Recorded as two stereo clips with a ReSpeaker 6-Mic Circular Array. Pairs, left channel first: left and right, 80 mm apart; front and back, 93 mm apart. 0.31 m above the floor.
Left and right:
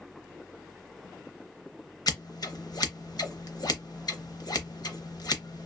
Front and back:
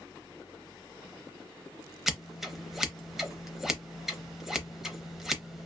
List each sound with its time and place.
2.1 s scissors: 95° left, 0.6 m